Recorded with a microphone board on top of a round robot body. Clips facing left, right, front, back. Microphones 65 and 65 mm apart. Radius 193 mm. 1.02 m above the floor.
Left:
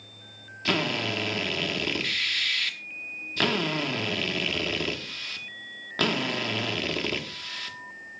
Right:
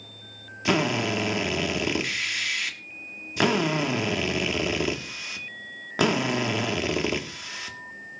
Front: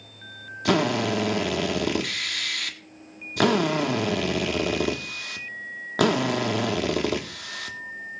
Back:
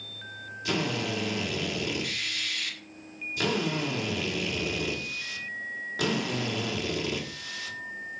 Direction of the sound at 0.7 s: 15° right.